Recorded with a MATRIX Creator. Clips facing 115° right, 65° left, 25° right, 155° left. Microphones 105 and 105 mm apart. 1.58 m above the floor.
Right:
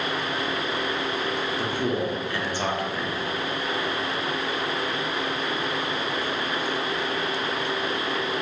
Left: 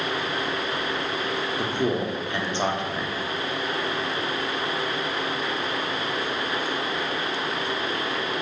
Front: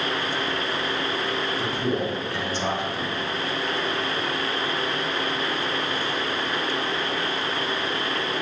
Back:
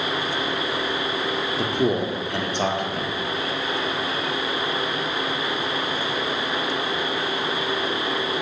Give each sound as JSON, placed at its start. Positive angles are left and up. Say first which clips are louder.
{"t": 1.6, "sound": "a man speaking", "louder": "left 2 dB, back 6 dB", "azimuth_deg": 135, "distance_m": 0.6}